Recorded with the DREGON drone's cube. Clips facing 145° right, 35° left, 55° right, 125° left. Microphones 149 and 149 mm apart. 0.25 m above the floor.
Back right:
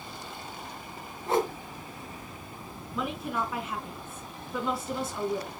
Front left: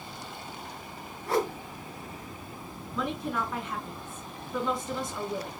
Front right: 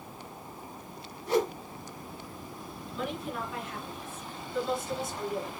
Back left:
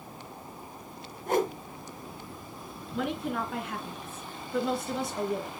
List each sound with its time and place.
1.3 s a whoosh: 150° left, 2 m
2.9 s a woman speaking: 130° left, 3.5 m